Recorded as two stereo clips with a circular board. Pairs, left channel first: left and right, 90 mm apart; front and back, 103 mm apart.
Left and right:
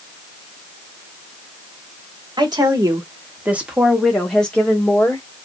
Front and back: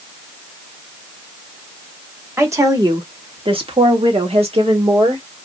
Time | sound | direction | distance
2.4 | a woman speaking | 115° right | 1.0 m